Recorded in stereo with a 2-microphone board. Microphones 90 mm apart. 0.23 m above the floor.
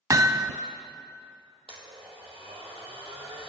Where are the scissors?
No scissors in this recording.